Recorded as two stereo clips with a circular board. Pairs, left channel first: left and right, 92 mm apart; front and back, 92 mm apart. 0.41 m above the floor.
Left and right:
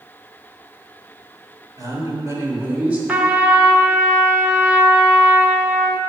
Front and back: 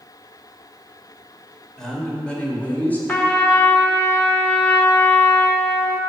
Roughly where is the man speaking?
Right.